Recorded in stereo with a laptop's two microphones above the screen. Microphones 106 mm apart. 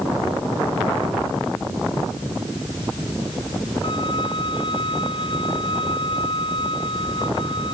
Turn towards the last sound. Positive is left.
turn(degrees=45)  # may be behind; listen again after turning